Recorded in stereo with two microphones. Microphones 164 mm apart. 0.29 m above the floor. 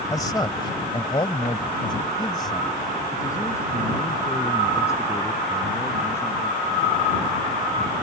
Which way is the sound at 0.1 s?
20° left (ahead or behind).